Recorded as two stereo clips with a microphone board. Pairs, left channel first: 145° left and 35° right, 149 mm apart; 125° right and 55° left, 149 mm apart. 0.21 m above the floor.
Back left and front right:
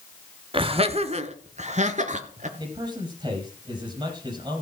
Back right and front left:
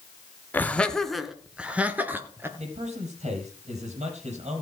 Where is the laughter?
55° right, 1.5 m; by 2.5 s 15° right, 2.5 m.